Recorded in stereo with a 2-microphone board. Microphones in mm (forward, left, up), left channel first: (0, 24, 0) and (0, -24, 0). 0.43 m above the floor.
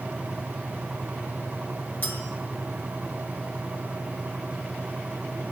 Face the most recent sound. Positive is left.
turn(degrees=45)  # may be behind; listen again after turning